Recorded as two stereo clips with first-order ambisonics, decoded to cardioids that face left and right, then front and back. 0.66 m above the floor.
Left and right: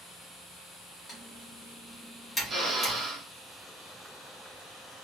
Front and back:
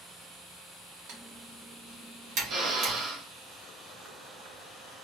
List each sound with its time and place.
1.1 s typing on a keyboard: 160° left, 1.3 m
2.5 s a drill: 155° right, 0.9 m